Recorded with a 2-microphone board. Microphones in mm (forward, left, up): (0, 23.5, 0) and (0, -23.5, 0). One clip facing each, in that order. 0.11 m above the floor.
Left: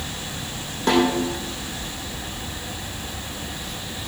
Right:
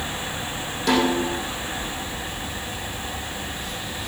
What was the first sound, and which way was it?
A snare drum, 35° left (ahead or behind).